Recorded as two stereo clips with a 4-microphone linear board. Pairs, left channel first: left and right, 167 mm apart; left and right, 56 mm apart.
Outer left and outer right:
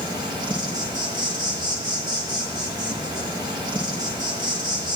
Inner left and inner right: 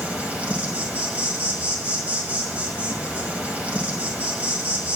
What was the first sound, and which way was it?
An insect, 25° right (ahead or behind).